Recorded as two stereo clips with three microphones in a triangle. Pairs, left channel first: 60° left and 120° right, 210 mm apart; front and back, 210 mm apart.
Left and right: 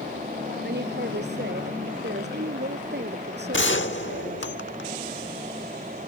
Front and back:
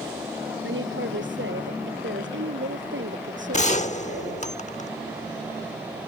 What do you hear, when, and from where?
0.6 s a woman speaking: 155° right
3.5 s a gunshot: 55° left